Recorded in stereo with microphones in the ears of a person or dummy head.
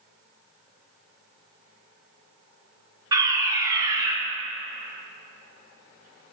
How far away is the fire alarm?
About 1.9 m.